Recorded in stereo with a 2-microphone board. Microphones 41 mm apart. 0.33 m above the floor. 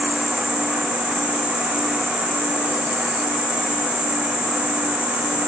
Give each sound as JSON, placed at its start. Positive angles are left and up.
{"t": 0.0, "sound": "an insect", "side_deg": -80, "distance_m": 8.0}